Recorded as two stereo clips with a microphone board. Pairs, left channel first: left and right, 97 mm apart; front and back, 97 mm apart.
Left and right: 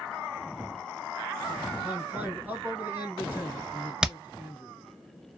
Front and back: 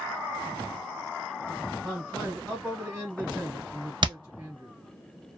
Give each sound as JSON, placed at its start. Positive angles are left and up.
{"t": 1.8, "sound": "a man speaking", "azimuth_deg": -125, "distance_m": 1.1}
{"t": 4.0, "sound": "hammering", "azimuth_deg": -170, "distance_m": 0.6}